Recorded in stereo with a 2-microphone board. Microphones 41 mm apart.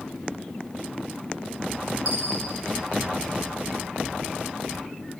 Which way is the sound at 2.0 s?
40° right (ahead or behind).